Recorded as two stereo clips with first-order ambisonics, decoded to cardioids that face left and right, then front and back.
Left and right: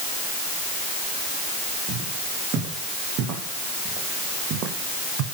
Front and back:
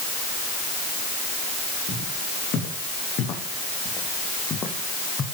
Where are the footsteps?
45° right, 6.5 m; by 5.2 s 75° right, 2.5 m.